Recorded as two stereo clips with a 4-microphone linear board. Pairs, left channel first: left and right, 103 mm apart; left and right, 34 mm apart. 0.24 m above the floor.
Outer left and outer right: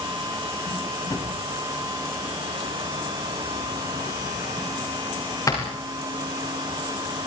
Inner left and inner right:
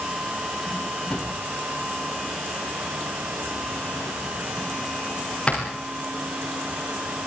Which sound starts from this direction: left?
A drawer, at 1.1 s.